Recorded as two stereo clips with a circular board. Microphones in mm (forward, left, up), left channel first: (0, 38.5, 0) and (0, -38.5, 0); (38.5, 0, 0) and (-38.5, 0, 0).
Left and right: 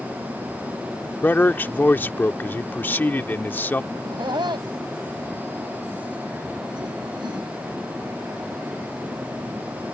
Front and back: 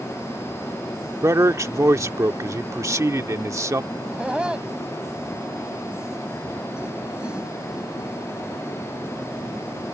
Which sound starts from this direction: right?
Laughter, at 3.9 s.